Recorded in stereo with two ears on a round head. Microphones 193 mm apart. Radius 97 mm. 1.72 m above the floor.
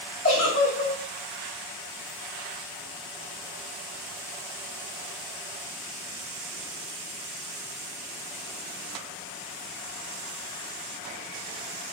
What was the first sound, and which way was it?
A giggle, 85° left.